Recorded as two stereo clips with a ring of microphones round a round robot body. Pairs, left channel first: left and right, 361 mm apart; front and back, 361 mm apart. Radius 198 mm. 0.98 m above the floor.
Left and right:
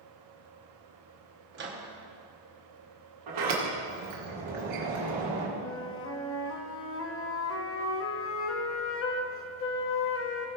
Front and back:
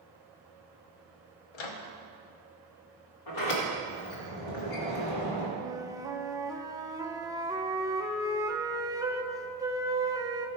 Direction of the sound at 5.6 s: 105° left.